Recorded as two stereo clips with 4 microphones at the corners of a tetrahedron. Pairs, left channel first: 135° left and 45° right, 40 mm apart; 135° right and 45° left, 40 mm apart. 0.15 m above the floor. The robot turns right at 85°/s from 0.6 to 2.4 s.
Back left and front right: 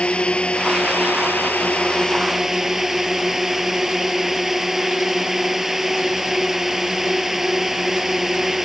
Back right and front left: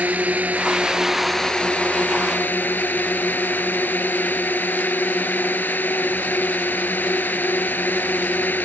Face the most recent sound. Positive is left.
turn(degrees=-125)